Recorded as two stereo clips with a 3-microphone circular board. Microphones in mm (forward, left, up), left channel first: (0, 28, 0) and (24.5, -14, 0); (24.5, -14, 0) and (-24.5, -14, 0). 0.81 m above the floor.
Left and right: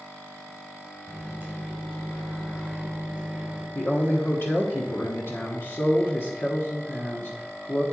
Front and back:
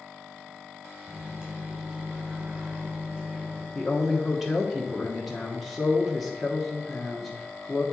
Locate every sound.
1.1 s a microwave: 115° right, 2.5 m
3.8 s a woman speaking: 95° left, 1.3 m